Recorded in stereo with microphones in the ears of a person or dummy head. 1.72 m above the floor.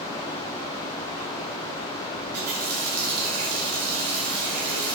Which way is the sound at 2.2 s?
55° right (ahead or behind).